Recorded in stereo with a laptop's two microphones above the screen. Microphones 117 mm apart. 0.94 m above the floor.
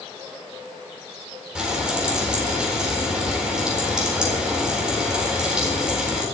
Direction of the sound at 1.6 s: 10° right (ahead or behind).